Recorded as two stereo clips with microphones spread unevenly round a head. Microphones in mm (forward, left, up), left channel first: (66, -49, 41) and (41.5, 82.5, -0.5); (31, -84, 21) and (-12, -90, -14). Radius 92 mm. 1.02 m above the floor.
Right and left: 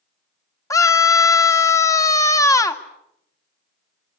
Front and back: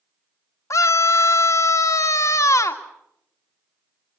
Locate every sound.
0.7 s a scream: 10° right, 2.5 m